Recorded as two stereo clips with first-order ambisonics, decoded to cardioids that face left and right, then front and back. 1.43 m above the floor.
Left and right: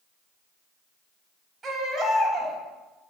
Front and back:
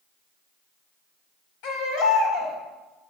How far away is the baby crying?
About 4 m.